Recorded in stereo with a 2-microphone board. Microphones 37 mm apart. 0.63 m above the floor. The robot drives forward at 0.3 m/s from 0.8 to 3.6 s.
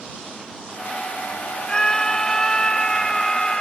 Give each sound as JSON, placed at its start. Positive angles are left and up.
{"t": 1.7, "sound": "a scream", "side_deg": 25}